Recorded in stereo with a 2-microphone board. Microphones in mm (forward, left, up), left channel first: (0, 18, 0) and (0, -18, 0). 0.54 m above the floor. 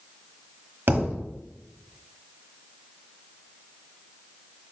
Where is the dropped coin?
I don't hear a dropped coin.